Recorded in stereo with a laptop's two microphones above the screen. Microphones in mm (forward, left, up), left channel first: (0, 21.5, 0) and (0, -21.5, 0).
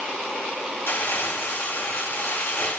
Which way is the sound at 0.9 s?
75° left (ahead or behind).